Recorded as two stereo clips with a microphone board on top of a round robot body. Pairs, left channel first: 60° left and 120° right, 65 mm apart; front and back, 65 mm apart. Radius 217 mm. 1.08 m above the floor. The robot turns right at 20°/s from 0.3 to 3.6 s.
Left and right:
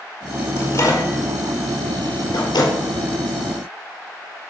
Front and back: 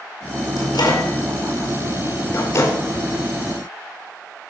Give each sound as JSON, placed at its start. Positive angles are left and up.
{"t": 0.6, "sound": "a microwave", "azimuth_deg": 0, "distance_m": 4.5}